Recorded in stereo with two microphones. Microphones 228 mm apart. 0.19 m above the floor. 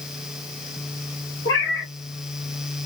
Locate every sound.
1.4 s a cat meowing: 70° left (ahead or behind), 1.7 m